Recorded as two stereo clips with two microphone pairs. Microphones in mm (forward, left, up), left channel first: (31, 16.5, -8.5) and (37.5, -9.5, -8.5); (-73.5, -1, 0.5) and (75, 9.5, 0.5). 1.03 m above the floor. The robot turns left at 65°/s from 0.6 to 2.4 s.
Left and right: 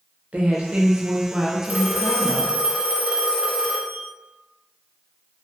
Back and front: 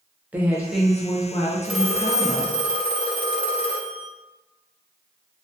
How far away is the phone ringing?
About 0.6 m.